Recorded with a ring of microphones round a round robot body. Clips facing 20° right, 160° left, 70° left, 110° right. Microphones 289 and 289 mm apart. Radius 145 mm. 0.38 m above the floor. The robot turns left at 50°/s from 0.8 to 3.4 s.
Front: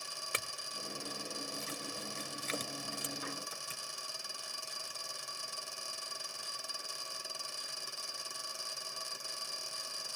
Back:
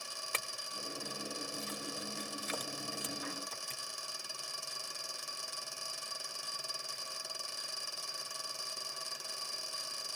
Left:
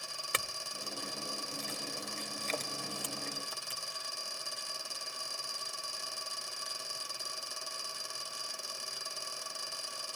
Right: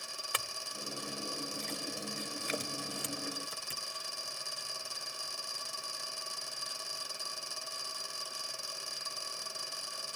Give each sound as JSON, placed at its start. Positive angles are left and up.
{"t": 0.3, "sound": "a clink", "azimuth_deg": 35, "distance_m": 0.6}